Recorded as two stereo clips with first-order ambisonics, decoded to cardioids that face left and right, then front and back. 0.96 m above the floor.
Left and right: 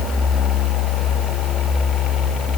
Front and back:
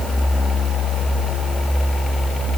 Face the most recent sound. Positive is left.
No sound to turn to.